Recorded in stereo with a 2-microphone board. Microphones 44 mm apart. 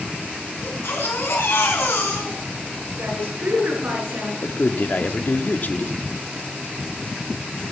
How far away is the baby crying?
About 4.5 m.